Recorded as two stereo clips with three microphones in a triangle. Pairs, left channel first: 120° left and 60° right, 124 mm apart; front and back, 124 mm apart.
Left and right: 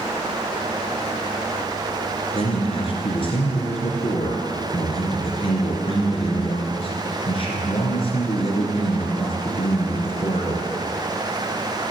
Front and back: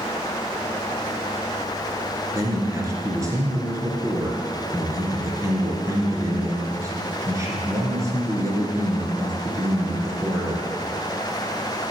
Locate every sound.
2.3 s a man speaking: 125° left, 2.5 m